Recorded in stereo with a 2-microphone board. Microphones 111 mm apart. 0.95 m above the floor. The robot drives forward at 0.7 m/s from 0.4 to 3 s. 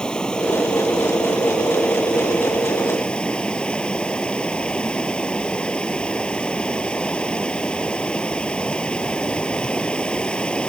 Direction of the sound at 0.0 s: 10° left (ahead or behind).